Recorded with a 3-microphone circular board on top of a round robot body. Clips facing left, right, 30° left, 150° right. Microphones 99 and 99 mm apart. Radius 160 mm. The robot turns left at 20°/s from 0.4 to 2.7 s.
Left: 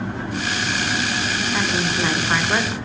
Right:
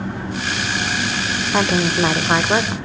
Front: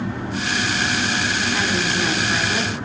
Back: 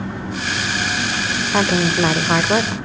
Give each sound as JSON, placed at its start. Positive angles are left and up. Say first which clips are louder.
{"t": 1.5, "sound": "a woman speaking", "louder": "right 7 dB, back 5 dB", "azimuth_deg": -125, "distance_m": 1.8}